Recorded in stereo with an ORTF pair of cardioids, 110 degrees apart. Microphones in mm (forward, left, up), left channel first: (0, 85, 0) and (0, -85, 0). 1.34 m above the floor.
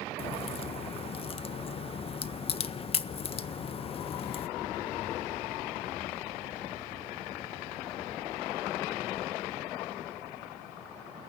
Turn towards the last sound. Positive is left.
turn(degrees=35)